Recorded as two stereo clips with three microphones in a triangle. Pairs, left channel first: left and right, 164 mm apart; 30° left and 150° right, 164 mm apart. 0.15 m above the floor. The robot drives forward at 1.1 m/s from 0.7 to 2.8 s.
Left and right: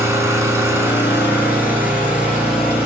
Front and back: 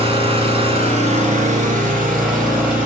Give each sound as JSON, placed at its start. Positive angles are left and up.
{"t": 0.0, "sound": "an engine running", "azimuth_deg": -150, "distance_m": 1.4}